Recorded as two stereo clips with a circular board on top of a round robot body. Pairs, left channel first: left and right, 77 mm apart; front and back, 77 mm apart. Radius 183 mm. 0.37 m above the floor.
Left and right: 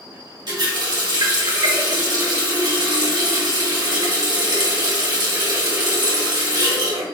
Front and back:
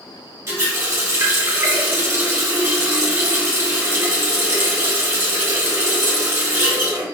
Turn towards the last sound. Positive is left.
turn(degrees=-125)